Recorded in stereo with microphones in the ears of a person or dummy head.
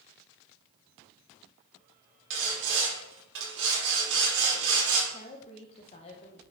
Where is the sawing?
65° right (ahead or behind), 3 m.